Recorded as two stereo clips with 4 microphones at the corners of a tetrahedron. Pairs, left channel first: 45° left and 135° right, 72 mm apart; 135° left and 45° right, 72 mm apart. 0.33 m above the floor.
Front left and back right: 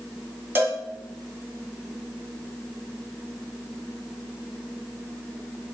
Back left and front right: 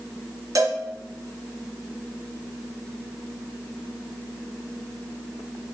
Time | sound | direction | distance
0.6 | a cowbell | 80° right | 1.9 m